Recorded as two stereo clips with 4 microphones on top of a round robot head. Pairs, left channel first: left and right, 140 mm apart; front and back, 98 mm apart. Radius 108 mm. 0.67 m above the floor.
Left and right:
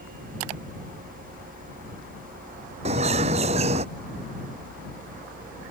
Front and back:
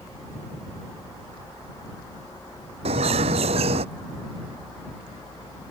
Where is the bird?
145° right.